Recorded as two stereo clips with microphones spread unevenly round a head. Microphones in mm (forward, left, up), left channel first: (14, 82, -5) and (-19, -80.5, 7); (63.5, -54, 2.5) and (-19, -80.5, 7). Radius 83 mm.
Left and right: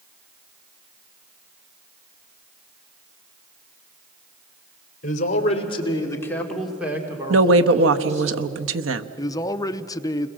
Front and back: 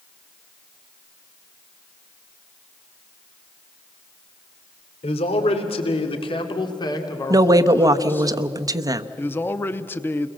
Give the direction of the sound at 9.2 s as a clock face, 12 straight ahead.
10 o'clock.